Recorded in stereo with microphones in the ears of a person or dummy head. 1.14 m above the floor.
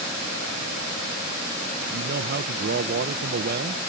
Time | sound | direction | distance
1.9 | a man speaking | 45° right (ahead or behind) | ?